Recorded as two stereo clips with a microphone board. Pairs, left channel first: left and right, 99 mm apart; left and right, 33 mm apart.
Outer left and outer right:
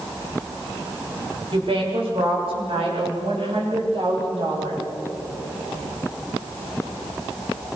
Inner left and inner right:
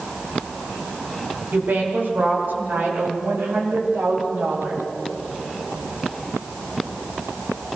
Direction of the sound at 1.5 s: 70° right (ahead or behind).